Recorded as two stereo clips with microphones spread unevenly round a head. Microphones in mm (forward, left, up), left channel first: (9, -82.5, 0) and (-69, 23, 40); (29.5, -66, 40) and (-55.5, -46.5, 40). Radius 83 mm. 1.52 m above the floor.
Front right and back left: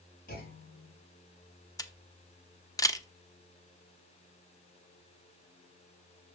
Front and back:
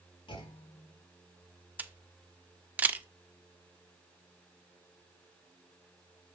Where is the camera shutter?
120° right, 1.0 m.